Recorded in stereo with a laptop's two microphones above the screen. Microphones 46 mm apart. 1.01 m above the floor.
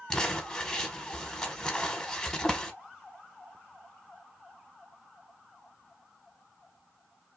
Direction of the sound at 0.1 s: 10° left (ahead or behind).